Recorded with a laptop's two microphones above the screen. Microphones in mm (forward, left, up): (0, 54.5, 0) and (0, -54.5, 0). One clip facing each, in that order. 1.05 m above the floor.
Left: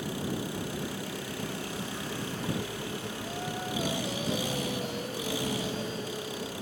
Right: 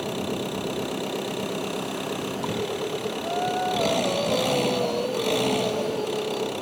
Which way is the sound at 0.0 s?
65° right (ahead or behind).